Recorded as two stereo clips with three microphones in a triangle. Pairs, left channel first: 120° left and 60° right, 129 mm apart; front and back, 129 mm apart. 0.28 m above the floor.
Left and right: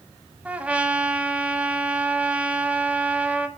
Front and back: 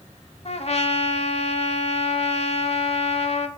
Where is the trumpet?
20° left, 0.7 m.